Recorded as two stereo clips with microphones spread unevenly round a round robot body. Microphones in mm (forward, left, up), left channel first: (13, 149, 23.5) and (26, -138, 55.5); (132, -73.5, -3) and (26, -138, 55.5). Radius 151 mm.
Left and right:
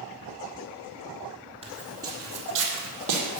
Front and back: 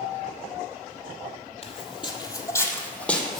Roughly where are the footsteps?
Ahead right.